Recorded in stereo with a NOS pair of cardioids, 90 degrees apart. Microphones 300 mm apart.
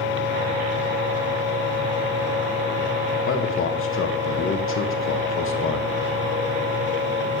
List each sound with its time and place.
0.0 s a machine running: 35° left, 2.5 m
3.3 s a man speaking: 45° left, 1.6 m